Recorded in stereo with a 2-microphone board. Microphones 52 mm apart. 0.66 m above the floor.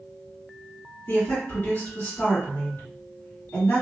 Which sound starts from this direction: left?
A woman speaking, at 1.1 s.